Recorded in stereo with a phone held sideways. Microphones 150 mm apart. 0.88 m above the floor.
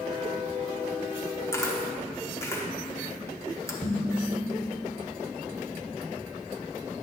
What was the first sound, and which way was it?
A camera shutter, 20° left (ahead or behind).